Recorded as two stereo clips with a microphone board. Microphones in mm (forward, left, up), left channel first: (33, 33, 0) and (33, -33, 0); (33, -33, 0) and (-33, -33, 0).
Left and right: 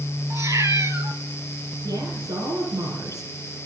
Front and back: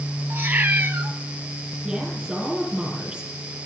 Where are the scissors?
I don't hear scissors.